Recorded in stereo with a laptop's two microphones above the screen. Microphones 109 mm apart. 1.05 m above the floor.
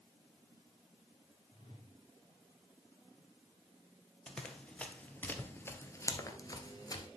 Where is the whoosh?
55° left (ahead or behind), 2.5 m.